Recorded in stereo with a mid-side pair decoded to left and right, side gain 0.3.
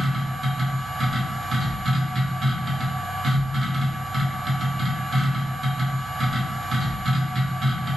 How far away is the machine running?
About 1.1 m.